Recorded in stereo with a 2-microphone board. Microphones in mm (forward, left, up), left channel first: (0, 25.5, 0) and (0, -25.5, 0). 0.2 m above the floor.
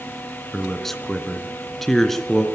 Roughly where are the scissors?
I don't hear scissors.